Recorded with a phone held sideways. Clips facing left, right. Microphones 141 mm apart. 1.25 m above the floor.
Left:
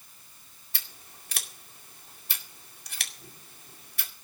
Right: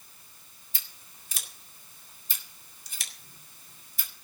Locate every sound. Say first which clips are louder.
0.7 s scissors: left 5 dB; 75° left (ahead or behind), 2 m